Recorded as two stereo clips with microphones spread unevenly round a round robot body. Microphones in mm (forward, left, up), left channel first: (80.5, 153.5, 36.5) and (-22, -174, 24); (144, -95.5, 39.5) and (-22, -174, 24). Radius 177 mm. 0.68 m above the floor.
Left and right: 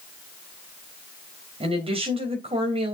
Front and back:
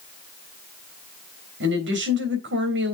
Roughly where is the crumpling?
I don't hear crumpling.